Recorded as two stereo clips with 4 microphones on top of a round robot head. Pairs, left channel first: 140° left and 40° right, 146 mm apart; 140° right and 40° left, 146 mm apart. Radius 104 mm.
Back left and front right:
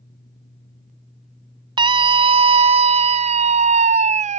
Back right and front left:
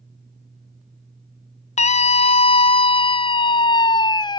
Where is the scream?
100° right; by 4.4 s 80° right.